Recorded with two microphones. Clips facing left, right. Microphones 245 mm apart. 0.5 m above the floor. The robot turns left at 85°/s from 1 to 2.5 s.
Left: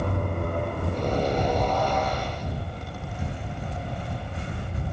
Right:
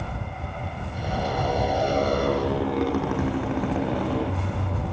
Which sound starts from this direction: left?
A motorcycle, at 0.0 s.